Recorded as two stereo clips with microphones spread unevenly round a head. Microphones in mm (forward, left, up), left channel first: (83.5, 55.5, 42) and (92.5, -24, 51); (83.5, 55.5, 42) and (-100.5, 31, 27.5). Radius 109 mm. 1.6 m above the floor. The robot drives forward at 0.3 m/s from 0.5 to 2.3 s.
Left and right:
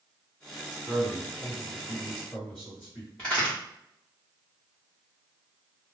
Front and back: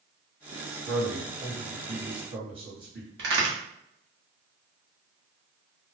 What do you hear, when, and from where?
0.7 s a man speaking: 175° left, 2 m
3.2 s a crack: straight behind, 1.3 m